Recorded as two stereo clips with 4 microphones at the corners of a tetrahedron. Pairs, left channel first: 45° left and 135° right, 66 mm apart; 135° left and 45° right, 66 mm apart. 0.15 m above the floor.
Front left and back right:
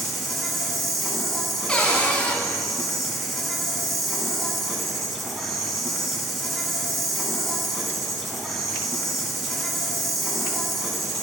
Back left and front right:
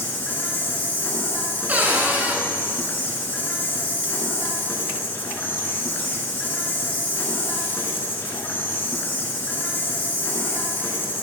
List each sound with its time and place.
0.0 s an insect: 135° left, 1.7 m
1.7 s a cupboard door: 10° right, 1.5 m